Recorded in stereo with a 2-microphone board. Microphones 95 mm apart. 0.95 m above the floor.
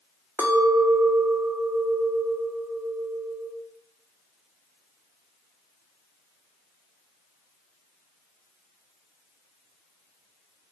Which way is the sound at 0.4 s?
25° right (ahead or behind).